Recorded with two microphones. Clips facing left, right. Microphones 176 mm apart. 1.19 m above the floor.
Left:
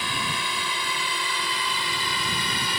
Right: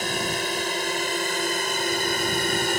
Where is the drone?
45° right (ahead or behind).